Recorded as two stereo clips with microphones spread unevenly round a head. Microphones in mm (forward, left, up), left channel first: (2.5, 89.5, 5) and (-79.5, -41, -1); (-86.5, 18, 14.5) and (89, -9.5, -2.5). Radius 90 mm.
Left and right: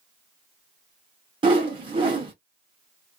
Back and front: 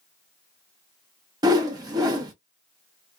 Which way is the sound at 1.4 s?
75° right.